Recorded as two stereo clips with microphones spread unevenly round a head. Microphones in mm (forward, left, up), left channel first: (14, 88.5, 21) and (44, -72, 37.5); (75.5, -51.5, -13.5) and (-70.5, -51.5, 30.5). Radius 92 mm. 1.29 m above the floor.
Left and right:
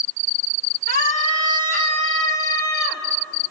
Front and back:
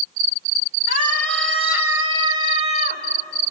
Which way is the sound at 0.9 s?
150° left.